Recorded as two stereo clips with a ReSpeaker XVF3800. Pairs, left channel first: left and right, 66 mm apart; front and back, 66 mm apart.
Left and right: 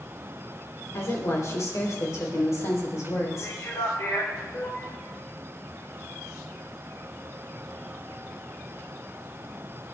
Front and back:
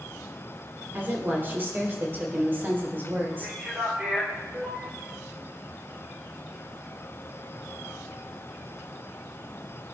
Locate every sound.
0.9 s a woman speaking: 125° left, 4.5 m
3.3 s a man speaking: 115° left, 4.5 m